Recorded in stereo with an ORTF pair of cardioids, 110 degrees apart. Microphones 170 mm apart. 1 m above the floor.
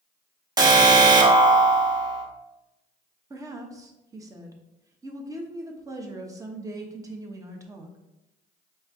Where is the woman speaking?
20° right, 0.8 m.